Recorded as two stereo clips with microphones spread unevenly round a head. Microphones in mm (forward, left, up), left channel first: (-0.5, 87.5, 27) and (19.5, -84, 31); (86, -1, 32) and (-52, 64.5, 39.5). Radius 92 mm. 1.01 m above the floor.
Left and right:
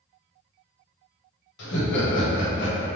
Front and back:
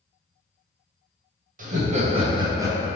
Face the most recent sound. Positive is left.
turn(degrees=75)